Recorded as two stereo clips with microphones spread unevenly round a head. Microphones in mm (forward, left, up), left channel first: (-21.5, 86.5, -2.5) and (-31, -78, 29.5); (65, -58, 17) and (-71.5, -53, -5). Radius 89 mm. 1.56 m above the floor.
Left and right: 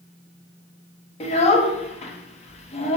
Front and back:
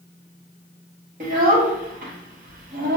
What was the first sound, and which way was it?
A child speaking, 140° left.